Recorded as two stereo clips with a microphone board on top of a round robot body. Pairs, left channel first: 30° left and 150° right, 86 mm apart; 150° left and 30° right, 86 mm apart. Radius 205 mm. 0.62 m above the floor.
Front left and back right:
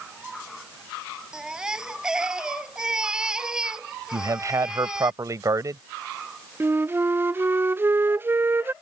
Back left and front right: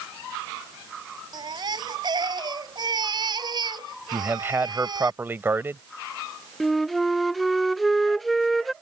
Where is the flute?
120° right.